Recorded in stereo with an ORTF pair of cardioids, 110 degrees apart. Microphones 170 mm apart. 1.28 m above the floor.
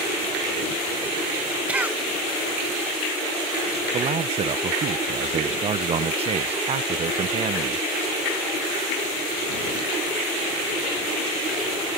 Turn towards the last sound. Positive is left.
turn(degrees=-40)